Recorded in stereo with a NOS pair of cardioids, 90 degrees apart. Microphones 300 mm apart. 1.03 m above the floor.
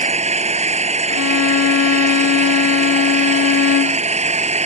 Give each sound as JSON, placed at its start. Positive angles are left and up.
{"t": 0.0, "sound": "an engine running", "azimuth_deg": -20}
{"t": 1.1, "sound": "a violin", "azimuth_deg": 50}